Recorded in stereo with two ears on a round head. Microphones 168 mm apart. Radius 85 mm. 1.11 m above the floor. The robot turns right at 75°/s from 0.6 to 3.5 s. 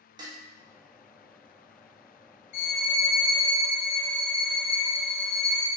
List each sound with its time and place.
0.2 s dishes clattering: 20° right (ahead or behind), 0.8 m
2.5 s a violin: 50° left, 1.8 m; by 5.7 s 120° left, 1.8 m